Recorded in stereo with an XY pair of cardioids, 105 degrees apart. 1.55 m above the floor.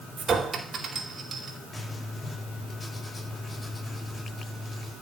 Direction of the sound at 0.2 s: 45° right.